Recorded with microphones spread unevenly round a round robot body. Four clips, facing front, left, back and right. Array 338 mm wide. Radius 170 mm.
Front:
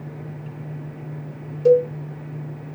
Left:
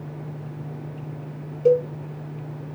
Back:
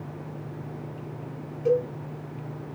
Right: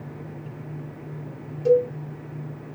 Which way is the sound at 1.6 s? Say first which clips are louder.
Even, front 8 dB; 25° left.